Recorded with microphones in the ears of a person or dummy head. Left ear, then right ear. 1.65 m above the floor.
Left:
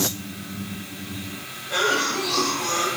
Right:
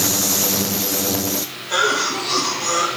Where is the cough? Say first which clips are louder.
Right 3 dB; 75° right (ahead or behind), 2.5 m.